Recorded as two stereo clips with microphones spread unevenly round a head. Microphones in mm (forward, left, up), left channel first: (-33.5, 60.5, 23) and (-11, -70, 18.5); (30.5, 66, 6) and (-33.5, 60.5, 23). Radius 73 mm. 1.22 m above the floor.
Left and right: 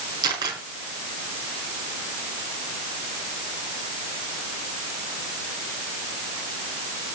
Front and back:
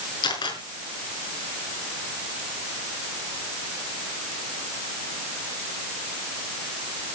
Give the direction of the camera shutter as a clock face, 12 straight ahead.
12 o'clock.